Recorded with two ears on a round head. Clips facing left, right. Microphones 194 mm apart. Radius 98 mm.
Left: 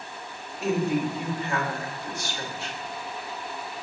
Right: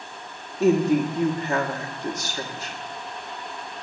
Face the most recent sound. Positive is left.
turn(degrees=-35)  # may be behind; listen again after turning